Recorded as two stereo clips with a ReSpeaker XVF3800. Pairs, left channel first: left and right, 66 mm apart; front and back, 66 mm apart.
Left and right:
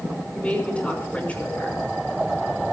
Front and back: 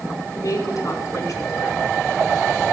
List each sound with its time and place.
0.3 s a woman speaking: 20° left, 5 m